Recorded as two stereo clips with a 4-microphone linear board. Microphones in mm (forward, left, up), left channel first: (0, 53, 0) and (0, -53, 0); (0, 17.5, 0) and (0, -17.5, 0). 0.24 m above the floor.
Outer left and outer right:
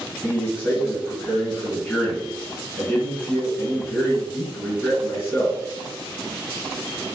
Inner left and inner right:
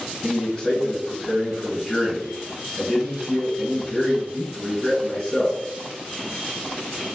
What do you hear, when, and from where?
0.2 s a man speaking: centre (ahead or behind), 1.9 m